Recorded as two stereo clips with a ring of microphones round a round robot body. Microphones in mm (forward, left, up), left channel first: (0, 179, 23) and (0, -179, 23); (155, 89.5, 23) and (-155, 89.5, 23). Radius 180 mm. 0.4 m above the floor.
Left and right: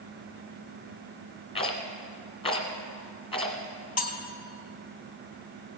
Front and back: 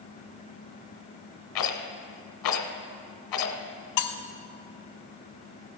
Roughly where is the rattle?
Ahead.